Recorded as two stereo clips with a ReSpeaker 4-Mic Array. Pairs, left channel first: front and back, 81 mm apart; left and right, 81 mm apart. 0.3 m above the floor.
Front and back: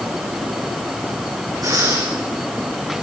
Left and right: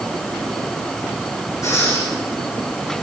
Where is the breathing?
140° left, 9 m.